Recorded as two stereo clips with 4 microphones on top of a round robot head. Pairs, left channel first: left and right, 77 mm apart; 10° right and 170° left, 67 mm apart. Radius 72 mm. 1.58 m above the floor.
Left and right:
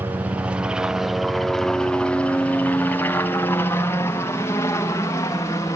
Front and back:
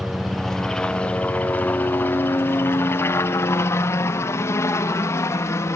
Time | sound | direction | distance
0.0 | a helicopter | 100° right | ?